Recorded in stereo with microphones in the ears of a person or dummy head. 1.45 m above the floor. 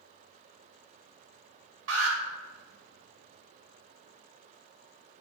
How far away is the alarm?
About 2 m.